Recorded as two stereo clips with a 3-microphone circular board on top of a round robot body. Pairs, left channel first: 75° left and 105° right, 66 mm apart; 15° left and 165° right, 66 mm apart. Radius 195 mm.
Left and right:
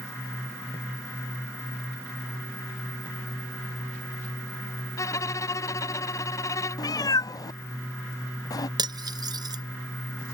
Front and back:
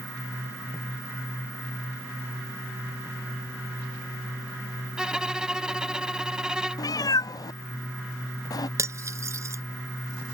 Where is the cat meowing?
45° left.